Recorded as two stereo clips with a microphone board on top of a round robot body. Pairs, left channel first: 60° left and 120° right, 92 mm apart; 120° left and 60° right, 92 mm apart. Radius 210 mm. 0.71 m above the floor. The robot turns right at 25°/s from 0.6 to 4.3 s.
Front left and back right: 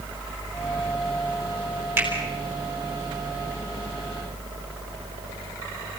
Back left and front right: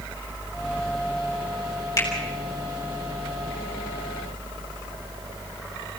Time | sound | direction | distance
2.0 | a finger snap | 170° left | 7.5 m